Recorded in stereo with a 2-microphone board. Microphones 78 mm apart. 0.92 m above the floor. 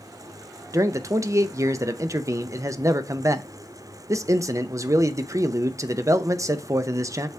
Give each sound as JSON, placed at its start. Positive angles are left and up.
{"t": 0.7, "sound": "a man speaking", "side_deg": -40, "distance_m": 0.6}